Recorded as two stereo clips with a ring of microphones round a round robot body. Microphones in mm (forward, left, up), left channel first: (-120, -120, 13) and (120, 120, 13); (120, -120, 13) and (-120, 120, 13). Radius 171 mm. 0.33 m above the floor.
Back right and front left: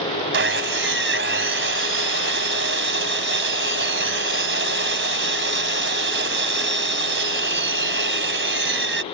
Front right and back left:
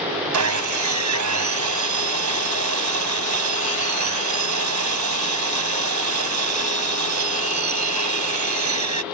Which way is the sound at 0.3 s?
100° left.